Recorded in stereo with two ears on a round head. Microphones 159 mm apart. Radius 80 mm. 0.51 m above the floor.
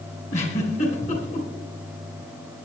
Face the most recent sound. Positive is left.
turn(degrees=40)  # may be behind; listen again after turning